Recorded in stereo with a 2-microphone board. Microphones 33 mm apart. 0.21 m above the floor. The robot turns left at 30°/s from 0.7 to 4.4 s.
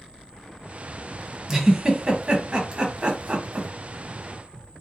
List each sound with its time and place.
1.5 s a giggle: 15° right (ahead or behind), 1.0 m; by 3.7 s 35° right (ahead or behind), 1.0 m